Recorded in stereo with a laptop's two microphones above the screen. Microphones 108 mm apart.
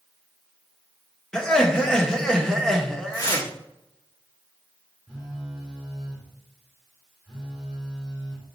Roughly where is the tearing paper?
Left.